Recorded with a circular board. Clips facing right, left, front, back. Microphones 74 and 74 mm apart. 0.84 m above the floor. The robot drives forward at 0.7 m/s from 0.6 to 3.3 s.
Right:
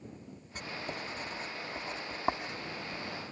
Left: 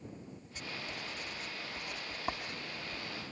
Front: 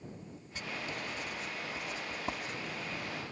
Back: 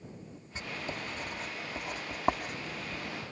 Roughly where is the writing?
Behind right.